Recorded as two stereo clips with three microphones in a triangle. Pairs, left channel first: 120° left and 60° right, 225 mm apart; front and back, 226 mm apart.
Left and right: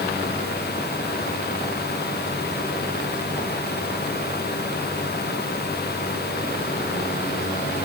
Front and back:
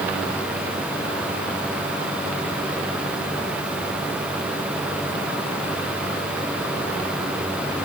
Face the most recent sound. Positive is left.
No sound to turn to.